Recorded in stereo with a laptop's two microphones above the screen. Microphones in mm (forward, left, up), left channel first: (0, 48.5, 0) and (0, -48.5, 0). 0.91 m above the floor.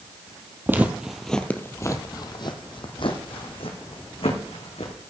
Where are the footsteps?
20° right (ahead or behind), 1.1 m; by 4.9 s 75° left (ahead or behind), 3 m.